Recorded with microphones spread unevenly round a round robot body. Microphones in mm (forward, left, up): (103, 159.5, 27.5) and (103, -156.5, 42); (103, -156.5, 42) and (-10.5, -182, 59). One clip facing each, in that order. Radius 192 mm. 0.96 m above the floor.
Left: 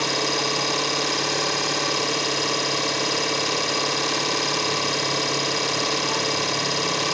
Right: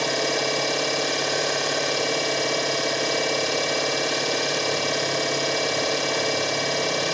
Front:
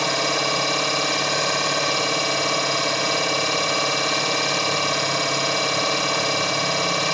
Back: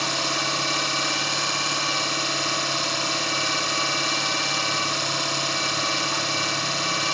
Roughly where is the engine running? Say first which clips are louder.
Right 1 dB, front 5 dB; ahead.